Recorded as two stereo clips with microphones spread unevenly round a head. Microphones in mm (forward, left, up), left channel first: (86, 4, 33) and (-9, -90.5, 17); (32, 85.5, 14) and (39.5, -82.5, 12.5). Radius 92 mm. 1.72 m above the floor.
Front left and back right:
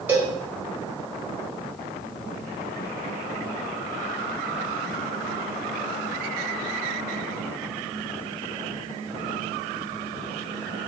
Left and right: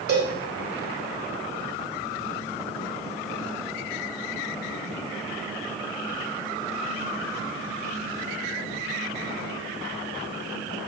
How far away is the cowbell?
About 1.4 m.